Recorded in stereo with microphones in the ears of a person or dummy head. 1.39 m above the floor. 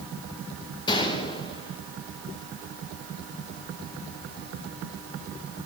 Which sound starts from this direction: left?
A gunshot, at 0.9 s.